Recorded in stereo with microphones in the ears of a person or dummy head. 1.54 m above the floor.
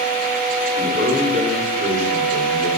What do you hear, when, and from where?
0.8 s a man speaking: 45° right (ahead or behind), 5.5 m; by 2.7 s 35° right (ahead or behind), 6 m